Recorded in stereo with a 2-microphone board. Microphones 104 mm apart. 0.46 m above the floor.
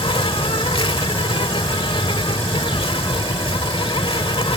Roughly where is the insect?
Left.